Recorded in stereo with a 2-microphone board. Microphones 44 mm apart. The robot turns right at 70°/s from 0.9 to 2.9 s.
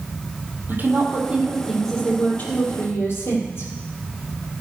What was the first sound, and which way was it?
A woman speaking, 60° right.